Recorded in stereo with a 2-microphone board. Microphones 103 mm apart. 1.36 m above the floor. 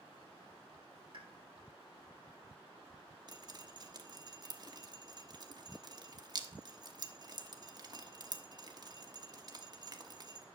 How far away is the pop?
About 2 m.